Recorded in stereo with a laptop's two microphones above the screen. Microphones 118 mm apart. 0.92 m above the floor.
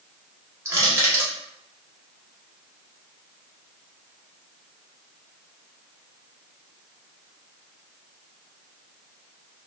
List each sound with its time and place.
0.7 s crushing: 20° right (ahead or behind), 0.9 m